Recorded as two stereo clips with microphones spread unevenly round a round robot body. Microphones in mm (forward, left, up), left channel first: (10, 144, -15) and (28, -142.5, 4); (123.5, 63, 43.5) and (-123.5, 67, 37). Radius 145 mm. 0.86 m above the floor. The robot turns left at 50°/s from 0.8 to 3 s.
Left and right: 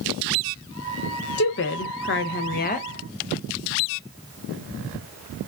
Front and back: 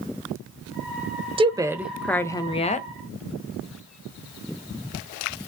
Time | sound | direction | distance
1.4 | a woman speaking | 120° left | 0.6 m